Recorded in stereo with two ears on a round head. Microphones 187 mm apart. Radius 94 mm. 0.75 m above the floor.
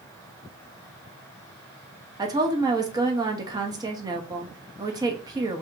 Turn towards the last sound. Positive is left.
turn(degrees=-20)  # may be behind; listen again after turning